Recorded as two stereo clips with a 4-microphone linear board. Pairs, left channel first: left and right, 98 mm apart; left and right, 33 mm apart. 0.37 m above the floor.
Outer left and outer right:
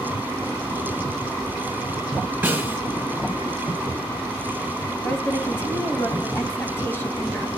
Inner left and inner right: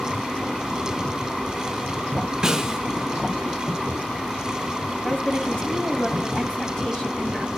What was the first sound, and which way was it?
A snare drum, 20° right (ahead or behind).